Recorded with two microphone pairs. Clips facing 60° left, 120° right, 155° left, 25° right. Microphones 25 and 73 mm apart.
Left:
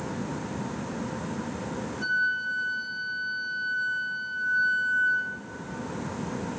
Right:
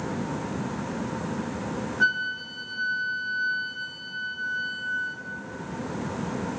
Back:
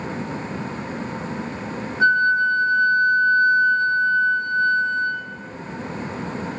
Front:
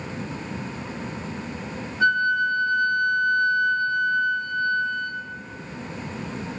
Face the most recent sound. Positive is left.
turn(degrees=-145)